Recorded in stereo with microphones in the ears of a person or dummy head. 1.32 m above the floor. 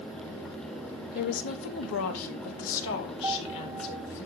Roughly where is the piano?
Right.